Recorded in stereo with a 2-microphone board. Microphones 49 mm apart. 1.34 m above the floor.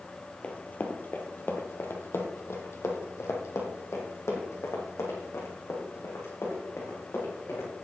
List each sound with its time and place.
0.4 s running footsteps: 25° left (ahead or behind), 1.6 m; by 7.7 s 65° left (ahead or behind), 5.5 m